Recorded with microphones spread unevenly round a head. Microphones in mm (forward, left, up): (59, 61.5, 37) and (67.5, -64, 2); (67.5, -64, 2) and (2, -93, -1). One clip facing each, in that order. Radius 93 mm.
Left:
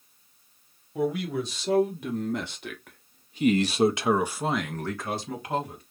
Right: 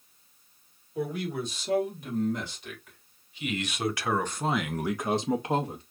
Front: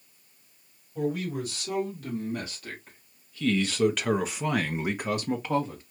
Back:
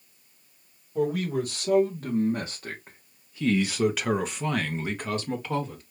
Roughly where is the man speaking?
Behind left.